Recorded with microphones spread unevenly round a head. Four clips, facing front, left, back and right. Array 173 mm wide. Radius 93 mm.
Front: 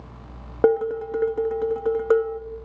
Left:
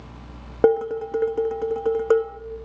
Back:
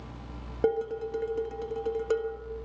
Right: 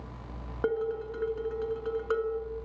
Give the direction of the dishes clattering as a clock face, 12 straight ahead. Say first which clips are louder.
Left 11 dB, front 8 dB; 10 o'clock.